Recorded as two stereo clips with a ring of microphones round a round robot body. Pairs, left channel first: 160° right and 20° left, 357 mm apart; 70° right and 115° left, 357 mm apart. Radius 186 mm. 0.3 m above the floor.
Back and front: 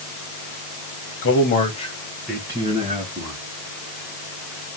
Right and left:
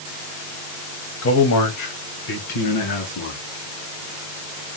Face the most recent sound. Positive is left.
turn(degrees=-40)